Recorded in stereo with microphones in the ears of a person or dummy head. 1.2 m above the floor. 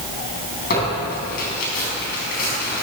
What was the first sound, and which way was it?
Tearing paper, 55° left (ahead or behind).